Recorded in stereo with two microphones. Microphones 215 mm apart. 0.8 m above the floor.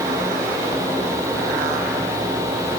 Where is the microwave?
I don't hear a microwave.